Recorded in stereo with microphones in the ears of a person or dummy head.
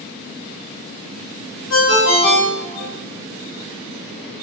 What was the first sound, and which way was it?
A ringtone, 70° left (ahead or behind).